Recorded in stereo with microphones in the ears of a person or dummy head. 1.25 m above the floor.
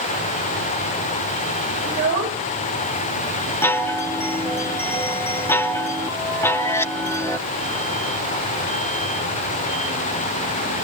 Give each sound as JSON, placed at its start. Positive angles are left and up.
{"t": 1.9, "sound": "a child speaking", "side_deg": -40, "distance_m": 1.9}
{"t": 3.6, "sound": "a chime", "side_deg": 15, "distance_m": 0.8}